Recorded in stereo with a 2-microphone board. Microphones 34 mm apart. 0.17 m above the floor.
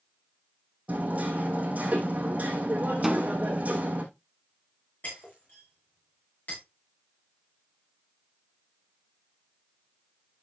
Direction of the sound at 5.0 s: 50° left (ahead or behind).